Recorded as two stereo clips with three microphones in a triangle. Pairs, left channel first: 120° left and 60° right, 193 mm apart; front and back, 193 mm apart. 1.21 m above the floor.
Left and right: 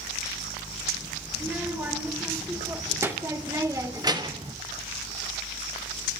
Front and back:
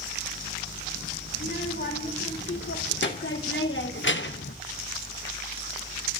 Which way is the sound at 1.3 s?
20° left.